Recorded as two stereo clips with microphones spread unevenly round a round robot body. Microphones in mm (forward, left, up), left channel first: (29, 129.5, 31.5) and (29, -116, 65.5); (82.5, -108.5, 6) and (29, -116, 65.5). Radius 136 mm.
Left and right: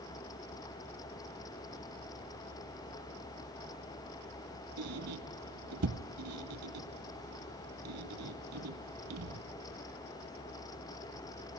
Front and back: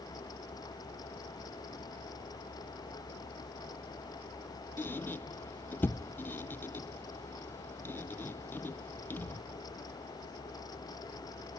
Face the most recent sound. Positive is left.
turn(degrees=-70)